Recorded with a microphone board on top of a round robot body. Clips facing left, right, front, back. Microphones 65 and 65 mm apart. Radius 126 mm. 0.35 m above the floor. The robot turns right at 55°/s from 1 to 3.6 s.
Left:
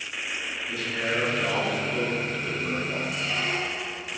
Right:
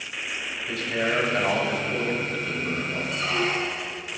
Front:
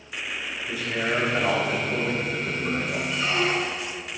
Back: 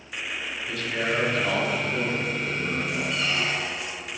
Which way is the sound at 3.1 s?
75° right.